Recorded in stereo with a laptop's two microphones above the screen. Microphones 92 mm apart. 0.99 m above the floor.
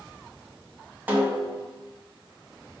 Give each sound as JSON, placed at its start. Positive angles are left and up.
{"t": 1.1, "sound": "a snare drum", "side_deg": -20, "distance_m": 1.1}